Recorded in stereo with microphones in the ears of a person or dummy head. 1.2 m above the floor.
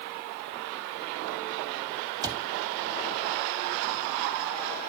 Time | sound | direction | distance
2.2 | a cupboard door | 20° right (ahead or behind) | 0.7 m